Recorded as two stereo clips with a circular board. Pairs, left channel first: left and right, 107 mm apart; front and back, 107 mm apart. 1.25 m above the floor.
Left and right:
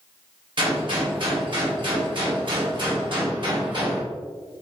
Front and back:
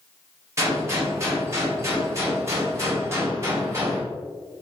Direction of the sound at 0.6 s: 120° right.